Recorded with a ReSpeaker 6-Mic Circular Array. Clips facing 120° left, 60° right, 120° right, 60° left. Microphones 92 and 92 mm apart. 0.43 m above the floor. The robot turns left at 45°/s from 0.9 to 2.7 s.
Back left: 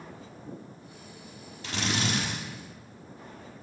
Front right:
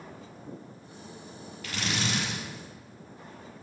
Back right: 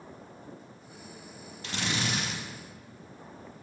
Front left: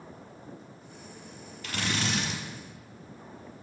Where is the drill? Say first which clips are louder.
Back left 2 dB, front left 1 dB; straight behind, 4.5 m; by 2.4 s 150° left, 4.5 m.